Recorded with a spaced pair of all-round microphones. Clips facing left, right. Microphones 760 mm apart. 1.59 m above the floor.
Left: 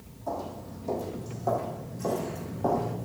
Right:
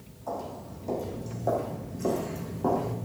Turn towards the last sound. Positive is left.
turn(degrees=15)  # may be behind; listen again after turning